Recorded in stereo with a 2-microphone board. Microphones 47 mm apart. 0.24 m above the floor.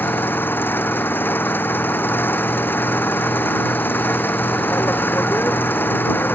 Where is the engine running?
45° left (ahead or behind).